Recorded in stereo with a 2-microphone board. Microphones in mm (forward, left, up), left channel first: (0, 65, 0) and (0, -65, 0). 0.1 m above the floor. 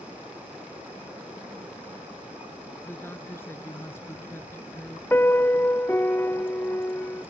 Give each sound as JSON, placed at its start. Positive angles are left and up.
{"t": 2.8, "sound": "a woman speaking", "side_deg": 20}
{"t": 5.1, "sound": "a piano", "side_deg": 15}